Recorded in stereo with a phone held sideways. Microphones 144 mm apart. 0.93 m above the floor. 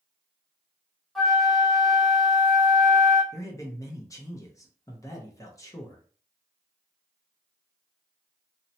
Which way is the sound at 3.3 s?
20° left (ahead or behind).